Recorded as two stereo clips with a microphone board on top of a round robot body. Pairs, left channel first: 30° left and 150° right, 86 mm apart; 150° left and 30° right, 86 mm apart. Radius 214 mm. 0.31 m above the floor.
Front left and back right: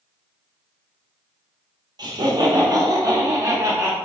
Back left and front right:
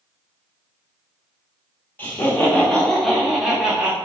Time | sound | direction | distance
2.0 | laughter | 145° right | 2 m